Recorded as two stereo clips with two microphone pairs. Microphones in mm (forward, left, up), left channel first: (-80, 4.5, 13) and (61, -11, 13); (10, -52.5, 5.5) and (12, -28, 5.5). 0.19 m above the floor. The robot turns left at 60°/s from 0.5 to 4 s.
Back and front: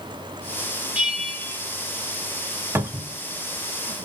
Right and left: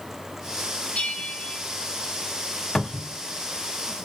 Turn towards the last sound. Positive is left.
turn(degrees=-130)